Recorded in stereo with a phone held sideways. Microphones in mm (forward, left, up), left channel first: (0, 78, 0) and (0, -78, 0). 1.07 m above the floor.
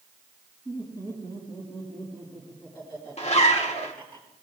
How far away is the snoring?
I don't hear snoring.